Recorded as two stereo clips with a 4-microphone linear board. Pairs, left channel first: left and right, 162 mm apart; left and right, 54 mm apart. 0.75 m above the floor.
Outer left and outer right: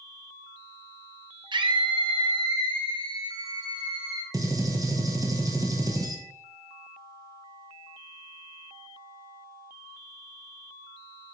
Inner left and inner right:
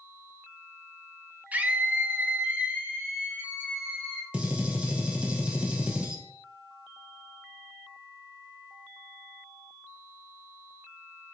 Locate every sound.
1.5 s a scream: 25° right (ahead or behind), 0.5 m
4.3 s a gunshot: 20° right (ahead or behind), 0.7 m